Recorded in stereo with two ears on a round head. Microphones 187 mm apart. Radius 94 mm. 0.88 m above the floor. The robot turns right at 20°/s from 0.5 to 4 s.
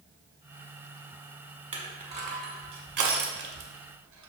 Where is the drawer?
No drawer in this recording.